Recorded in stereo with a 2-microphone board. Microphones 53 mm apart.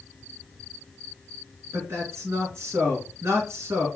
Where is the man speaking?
55° right (ahead or behind), 2.5 m.